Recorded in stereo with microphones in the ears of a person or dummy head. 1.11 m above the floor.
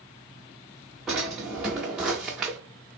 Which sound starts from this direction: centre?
A drawer, at 1.1 s.